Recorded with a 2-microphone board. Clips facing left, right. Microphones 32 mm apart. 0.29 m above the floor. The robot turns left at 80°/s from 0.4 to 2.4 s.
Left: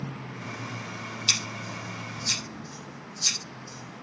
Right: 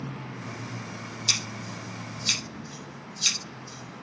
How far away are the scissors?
About 6 m.